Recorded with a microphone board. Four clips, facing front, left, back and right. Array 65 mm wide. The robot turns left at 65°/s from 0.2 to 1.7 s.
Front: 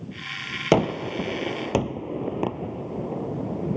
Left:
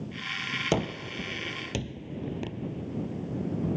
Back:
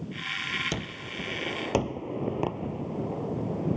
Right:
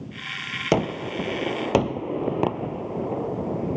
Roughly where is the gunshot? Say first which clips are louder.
Right 9 dB, front 14 dB; ahead.